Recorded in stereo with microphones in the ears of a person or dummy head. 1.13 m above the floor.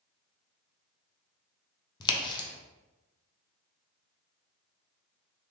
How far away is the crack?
About 0.7 m.